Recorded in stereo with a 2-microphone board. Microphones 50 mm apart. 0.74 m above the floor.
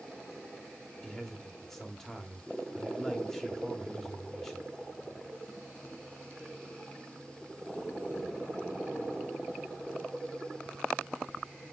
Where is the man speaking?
10° left (ahead or behind), 1.3 m.